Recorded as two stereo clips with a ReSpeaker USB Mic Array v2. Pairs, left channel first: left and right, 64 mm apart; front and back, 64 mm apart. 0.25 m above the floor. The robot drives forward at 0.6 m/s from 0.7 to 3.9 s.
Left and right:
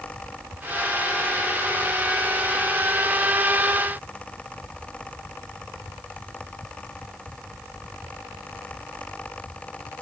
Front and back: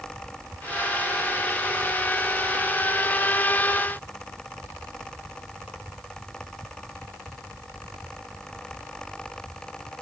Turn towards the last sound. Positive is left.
No sound to turn to.